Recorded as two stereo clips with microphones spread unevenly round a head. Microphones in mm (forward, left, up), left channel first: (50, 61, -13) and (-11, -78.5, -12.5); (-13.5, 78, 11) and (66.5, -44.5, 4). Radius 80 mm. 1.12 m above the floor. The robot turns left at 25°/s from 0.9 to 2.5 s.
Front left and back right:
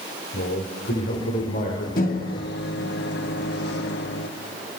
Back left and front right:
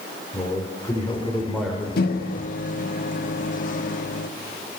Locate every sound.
0.3 s a man speaking: 50° left, 5 m; by 1.9 s 30° left, 5 m
2.0 s a microwave: 105° left, 1.5 m; by 4.3 s 90° left, 1.5 m